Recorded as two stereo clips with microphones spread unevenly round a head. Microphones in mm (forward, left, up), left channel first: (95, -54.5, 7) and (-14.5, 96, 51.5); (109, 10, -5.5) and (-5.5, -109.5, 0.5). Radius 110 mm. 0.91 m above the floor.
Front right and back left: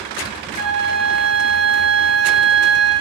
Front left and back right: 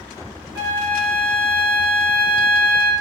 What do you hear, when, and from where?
0.6 s a flute: 75° right, 1.6 m